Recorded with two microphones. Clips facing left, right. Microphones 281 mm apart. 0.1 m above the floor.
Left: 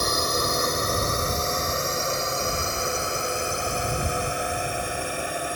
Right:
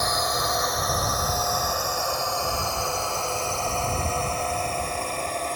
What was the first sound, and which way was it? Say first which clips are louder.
A drone: left 2 dB; 35° left (ahead or behind).